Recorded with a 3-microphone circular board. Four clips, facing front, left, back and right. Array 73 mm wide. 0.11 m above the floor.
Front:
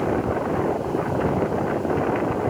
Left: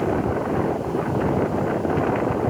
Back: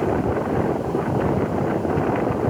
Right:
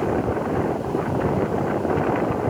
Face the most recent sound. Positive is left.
No sound to turn to.